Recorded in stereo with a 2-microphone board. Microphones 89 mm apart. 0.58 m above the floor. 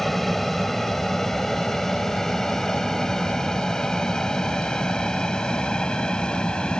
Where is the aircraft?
Centre (ahead or behind); by 6.8 s 10° left (ahead or behind).